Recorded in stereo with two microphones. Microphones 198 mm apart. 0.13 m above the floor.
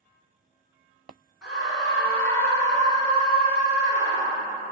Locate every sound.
1.4 s a scream: 5° right (ahead or behind), 1.9 m; by 4.5 s 45° left (ahead or behind), 2.5 m